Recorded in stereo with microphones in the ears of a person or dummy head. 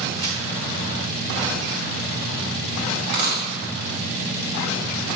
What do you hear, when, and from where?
0.2 s a crack: 40° right (ahead or behind), 2 m
3.0 s a dropped coin: 60° right (ahead or behind), 1.5 m